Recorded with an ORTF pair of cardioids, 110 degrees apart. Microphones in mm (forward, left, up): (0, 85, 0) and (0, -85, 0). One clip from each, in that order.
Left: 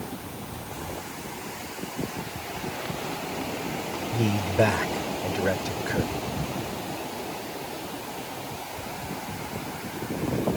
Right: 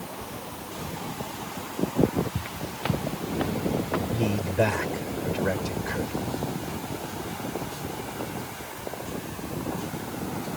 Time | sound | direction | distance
2.4 | footsteps | 55° right | ?
4.1 | a man speaking | 10° left | ?